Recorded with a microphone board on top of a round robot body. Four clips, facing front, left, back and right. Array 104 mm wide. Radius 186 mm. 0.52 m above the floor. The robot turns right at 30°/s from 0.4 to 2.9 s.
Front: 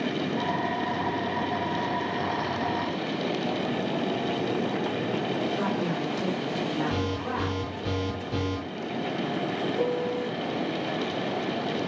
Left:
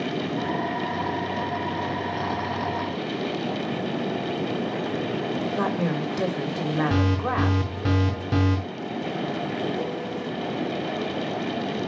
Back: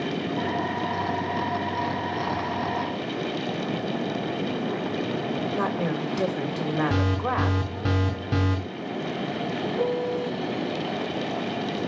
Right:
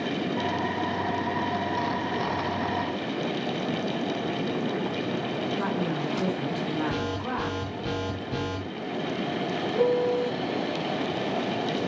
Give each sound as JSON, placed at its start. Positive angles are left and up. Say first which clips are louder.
{"t": 5.5, "sound": "a woman speaking", "louder": "left 4 dB, back 2 dB", "azimuth_deg": 125, "distance_m": 4.5}
{"t": 6.9, "sound": "an alarm", "louder": "left 5 dB, back 4 dB", "azimuth_deg": 130, "distance_m": 5.0}
{"t": 9.8, "sound": "a piano", "louder": "right 6 dB, back 3 dB", "azimuth_deg": -80, "distance_m": 1.0}